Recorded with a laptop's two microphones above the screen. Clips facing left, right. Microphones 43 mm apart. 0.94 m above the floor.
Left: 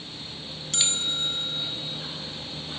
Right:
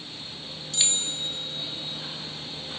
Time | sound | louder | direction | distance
0.7 | a bell | left 2 dB | 70° left (ahead or behind) | 1.8 m